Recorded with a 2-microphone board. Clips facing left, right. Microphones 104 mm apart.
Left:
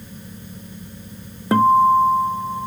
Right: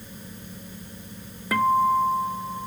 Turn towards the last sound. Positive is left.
turn(degrees=30)  # may be behind; listen again after turning